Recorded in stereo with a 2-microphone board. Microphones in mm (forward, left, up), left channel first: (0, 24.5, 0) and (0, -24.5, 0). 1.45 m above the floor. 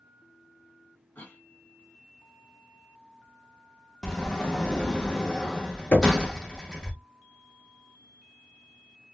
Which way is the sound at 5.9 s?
40° left (ahead or behind).